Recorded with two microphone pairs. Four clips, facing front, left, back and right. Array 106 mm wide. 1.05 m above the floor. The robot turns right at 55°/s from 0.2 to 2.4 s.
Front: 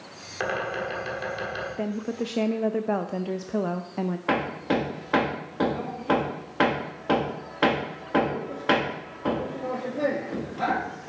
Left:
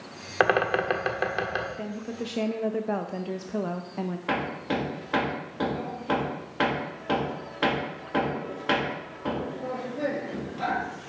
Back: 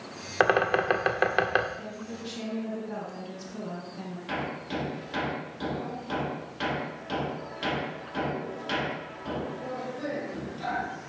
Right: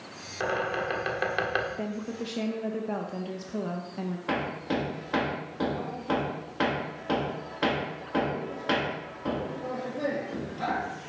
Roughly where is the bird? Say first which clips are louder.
Left 6 dB, back 5 dB; behind left.